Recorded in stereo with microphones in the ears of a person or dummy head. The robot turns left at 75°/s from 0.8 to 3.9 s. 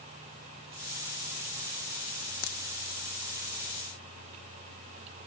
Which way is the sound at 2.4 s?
60° left (ahead or behind).